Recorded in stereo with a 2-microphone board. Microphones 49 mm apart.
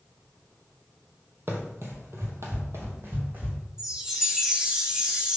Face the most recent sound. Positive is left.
turn(degrees=-15)  # may be behind; listen again after turning